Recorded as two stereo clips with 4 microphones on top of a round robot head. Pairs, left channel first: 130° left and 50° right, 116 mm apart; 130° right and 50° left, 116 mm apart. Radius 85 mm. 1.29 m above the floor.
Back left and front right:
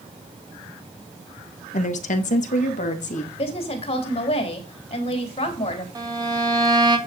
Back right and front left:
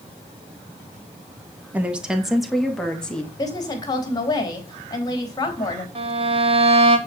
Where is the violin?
10° left, 2 m.